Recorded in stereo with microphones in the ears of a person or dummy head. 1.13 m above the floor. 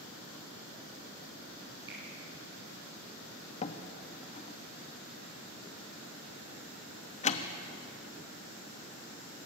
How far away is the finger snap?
About 9 m.